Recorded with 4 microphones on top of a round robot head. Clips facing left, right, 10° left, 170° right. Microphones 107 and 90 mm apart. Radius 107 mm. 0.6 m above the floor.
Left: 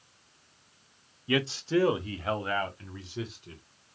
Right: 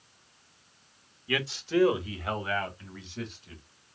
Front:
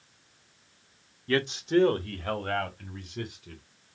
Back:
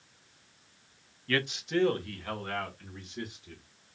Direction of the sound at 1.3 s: 55° left.